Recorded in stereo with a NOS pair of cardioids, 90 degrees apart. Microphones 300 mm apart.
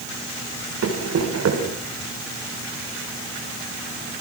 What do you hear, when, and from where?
0.8 s running footsteps: 55° right, 8 m